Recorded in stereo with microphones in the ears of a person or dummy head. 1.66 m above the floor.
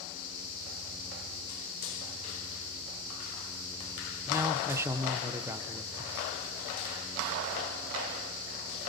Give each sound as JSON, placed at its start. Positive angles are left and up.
{"t": 4.3, "sound": "a man speaking", "side_deg": -15, "distance_m": 1.2}